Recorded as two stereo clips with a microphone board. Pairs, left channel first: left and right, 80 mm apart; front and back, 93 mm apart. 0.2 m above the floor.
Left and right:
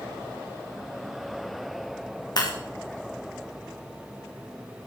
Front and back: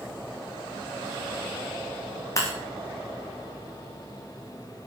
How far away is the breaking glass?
About 4.5 m.